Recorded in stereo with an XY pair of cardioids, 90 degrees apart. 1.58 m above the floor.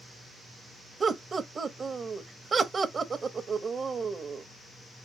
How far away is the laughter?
About 0.8 m.